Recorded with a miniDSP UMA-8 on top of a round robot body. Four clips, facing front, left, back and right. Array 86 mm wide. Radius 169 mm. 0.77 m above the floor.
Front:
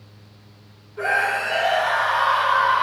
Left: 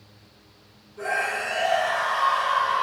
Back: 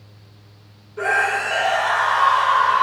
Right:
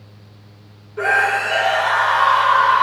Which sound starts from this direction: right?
A scream, at 1.0 s.